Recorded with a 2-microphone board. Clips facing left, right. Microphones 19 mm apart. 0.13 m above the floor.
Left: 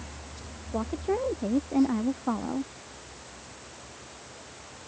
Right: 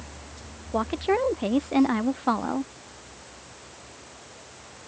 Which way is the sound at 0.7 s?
70° right (ahead or behind).